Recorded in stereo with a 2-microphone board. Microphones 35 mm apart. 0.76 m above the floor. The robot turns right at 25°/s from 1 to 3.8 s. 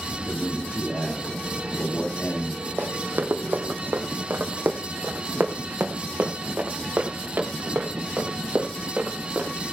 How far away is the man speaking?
About 4.5 m.